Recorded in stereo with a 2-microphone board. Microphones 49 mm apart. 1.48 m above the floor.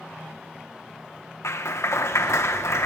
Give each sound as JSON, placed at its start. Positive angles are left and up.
{"t": 1.4, "sound": "a clap", "side_deg": 70, "distance_m": 1.2}